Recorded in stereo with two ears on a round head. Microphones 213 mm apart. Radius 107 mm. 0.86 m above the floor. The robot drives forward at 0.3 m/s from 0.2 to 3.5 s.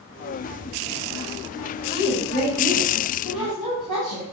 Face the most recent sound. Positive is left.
turn(degrees=-5)  # may be behind; listen again after turning